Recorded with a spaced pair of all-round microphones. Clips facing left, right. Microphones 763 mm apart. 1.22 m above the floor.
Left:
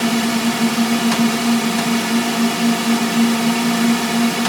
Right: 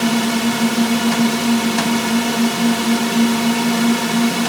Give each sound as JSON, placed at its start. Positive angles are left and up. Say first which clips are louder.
{"t": 0.0, "sound": "a drone", "louder": "even", "side_deg": -10}